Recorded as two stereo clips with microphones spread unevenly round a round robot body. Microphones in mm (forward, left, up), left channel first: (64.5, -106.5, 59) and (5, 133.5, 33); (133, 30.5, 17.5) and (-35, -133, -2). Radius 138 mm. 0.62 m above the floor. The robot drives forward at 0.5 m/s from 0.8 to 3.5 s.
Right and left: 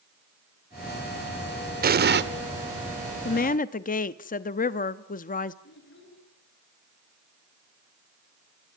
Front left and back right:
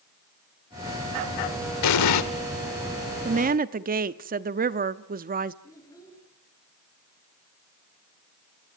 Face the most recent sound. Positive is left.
turn(degrees=-35)